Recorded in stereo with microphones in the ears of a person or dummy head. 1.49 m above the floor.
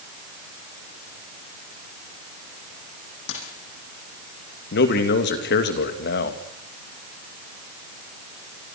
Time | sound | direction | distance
3.3 | a dropped coin | 75° left (ahead or behind) | 6 m
4.7 | a man speaking | 60° left (ahead or behind) | 2.5 m